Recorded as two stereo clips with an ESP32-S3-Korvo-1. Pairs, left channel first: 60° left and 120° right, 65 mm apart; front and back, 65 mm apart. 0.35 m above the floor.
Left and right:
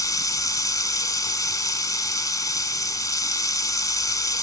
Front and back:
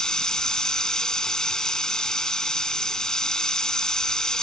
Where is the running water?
80° left, 0.8 m.